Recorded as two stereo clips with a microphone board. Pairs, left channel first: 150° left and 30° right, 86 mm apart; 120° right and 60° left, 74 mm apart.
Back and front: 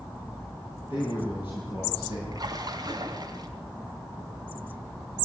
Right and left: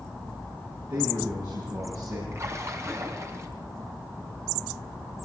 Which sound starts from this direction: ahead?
A splash, at 2.3 s.